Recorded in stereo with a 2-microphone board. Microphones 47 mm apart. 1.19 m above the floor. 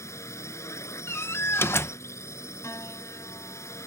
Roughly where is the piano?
Left.